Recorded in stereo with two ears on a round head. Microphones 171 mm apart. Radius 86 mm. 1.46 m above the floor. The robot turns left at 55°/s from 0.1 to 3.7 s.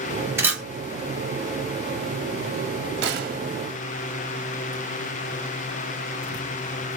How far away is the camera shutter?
About 1.1 m.